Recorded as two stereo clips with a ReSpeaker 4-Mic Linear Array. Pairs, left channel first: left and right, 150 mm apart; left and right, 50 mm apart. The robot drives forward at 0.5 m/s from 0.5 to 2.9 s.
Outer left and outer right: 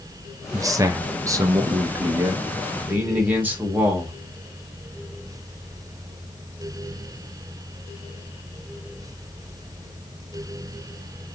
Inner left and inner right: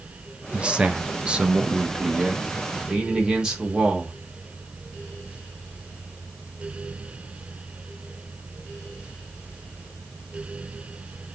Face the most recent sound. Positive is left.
turn(degrees=-10)  # may be behind; listen again after turning